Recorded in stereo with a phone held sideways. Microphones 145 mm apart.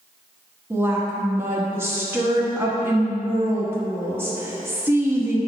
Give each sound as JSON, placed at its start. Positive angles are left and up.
{"t": 0.7, "sound": "a woman speaking", "side_deg": -15, "distance_m": 1.2}